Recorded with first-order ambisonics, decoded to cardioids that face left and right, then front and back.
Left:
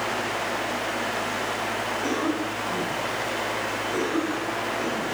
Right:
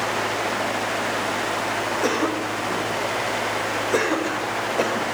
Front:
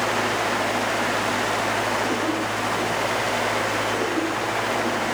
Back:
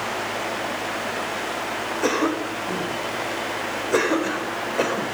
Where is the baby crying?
No baby crying in this recording.